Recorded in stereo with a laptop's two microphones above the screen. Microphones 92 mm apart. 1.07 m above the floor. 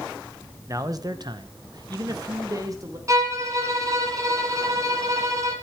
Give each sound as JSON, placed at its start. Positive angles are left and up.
{"t": 0.7, "sound": "a man speaking", "side_deg": -35, "distance_m": 1.0}
{"t": 3.1, "sound": "a violin", "side_deg": -35, "distance_m": 2.5}